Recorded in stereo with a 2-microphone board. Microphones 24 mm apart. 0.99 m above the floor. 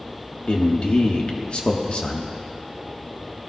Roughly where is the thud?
I don't hear a thud.